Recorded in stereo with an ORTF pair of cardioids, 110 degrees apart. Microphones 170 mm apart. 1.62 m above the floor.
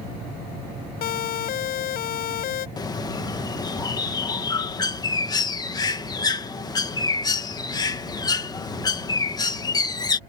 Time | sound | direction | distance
1.0 | a siren | 65° left | ?
2.8 | a bird | 25° left | ?